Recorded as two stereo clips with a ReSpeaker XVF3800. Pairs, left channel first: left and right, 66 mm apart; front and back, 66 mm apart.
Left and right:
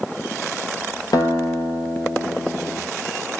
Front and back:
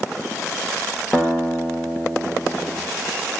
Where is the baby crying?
No baby crying in this recording.